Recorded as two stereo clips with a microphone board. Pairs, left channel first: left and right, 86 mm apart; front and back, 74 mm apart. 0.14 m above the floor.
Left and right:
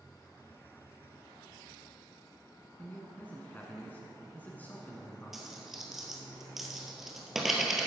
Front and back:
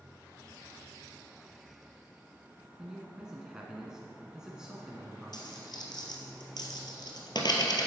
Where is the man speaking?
115° left, 1.1 m.